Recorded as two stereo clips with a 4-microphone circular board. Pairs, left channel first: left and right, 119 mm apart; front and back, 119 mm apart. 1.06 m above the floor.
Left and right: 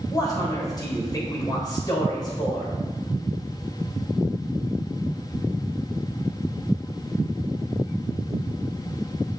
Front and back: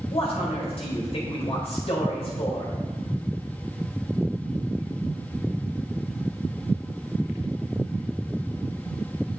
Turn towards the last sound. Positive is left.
turn(degrees=35)